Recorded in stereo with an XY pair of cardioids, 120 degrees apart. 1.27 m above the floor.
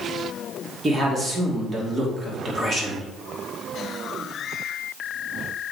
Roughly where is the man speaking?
Ahead right.